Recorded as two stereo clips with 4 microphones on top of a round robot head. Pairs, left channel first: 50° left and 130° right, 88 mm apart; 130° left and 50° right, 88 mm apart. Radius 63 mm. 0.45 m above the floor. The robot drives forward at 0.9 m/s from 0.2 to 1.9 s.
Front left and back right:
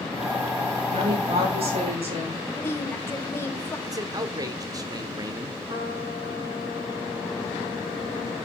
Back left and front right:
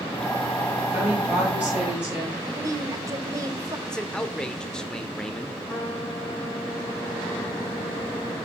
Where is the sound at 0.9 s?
125° right, 9 m; by 2.4 s 130° right, 9.5 m.